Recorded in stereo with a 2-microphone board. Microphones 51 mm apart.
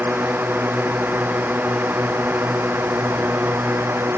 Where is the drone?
35° right (ahead or behind); by 4.2 s 55° right (ahead or behind).